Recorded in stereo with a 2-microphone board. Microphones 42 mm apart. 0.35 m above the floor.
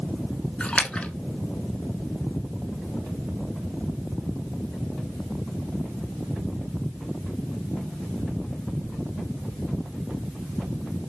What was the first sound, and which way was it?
A splash, 30° left (ahead or behind).